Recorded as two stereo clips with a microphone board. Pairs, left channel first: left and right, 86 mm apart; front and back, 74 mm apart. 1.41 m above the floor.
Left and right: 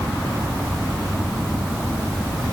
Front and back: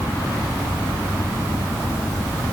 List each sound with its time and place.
Only background noise.